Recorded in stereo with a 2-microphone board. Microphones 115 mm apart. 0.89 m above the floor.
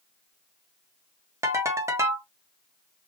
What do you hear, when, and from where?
1.4 s a ringtone: 25° right (ahead or behind), 1.1 m